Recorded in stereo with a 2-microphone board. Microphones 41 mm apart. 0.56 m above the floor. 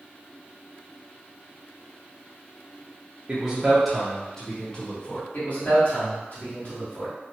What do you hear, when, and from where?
3.3 s a man speaking: 25° right (ahead or behind), 0.7 m; by 5.2 s 35° left (ahead or behind), 1.2 m
5.3 s a man speaking: 50° left (ahead or behind), 1.6 m